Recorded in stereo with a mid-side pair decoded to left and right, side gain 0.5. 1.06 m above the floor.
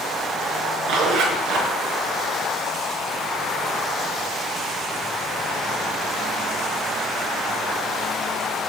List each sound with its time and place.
0.9 s a zipper: 70° right, 4 m